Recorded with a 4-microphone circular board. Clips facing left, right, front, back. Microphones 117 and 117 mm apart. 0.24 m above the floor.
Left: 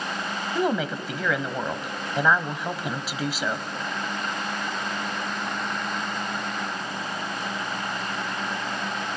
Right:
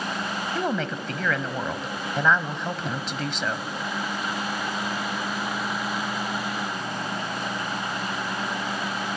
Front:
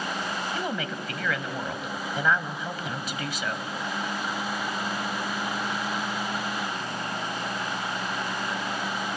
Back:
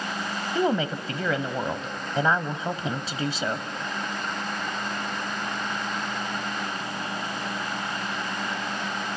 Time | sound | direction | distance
0.6 | a woman speaking | 165° left | 1.1 m